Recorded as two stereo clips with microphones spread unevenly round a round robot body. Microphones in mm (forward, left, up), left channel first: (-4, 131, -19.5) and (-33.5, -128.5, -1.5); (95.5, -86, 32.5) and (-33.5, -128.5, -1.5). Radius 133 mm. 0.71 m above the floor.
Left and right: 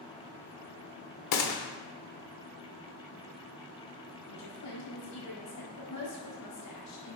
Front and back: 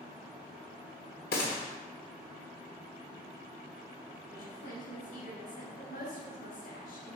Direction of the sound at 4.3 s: 60° left.